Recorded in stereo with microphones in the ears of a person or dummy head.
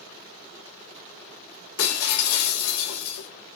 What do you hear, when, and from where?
1.8 s breaking glass: 70° left (ahead or behind), 3 m